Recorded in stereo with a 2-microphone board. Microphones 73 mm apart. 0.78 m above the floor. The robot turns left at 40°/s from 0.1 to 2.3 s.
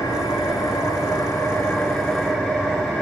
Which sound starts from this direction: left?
An engine running, at 0.0 s.